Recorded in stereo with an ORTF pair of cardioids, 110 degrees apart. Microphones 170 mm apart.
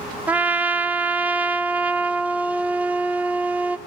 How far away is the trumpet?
About 0.6 m.